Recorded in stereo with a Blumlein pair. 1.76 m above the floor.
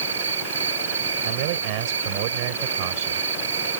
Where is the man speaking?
45° right.